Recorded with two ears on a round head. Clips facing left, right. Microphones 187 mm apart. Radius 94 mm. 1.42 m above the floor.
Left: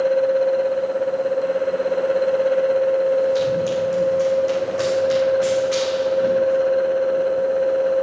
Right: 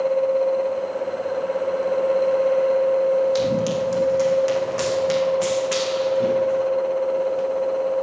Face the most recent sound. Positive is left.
turn(degrees=-65)  # may be behind; listen again after turning